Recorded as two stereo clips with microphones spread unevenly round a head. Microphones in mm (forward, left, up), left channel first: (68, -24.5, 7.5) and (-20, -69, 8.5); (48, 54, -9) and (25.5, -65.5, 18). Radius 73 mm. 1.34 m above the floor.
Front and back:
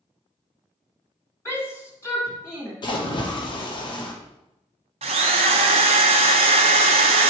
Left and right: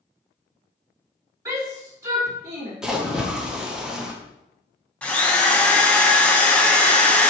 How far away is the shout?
About 3.5 m.